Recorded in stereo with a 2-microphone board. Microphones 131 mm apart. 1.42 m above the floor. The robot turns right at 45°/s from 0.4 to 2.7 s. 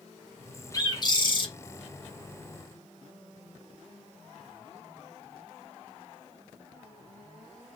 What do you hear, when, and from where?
0.7 s a bird: 50° left, 0.7 m; by 1.5 s 80° left, 0.7 m